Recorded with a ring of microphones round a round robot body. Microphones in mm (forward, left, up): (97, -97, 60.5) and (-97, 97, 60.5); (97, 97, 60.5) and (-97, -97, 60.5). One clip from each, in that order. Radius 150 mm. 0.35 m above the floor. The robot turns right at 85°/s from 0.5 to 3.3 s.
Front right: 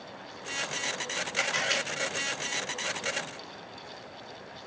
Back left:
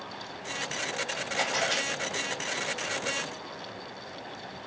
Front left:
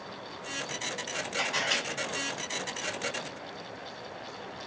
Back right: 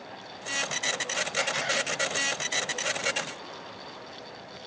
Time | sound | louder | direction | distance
1.4 | a camera shutter | even, front left 1 dB | 65° right | 1.1 m